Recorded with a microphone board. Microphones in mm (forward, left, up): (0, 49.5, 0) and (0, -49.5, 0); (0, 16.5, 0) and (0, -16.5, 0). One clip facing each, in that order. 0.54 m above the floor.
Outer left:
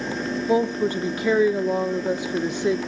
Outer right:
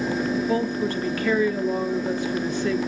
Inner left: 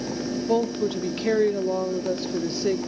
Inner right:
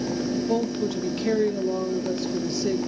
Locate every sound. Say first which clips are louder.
0.5 s a woman speaking: outer left 3 dB, inner left 2 dB; 20° left (ahead or behind), 0.9 m